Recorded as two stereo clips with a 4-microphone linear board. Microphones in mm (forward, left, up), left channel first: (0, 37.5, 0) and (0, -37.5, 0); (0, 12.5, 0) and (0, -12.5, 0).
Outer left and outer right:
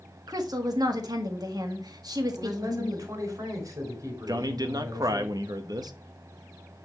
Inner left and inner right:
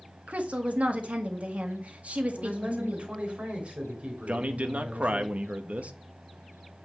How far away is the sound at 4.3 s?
About 0.8 m.